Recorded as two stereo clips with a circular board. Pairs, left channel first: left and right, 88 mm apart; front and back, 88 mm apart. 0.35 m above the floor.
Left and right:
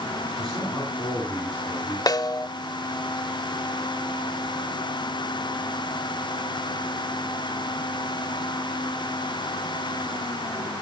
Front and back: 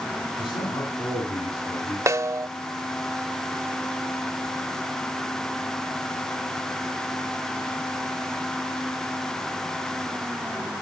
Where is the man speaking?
5° left, 4.5 m; by 2.0 s 10° left, 6.5 m.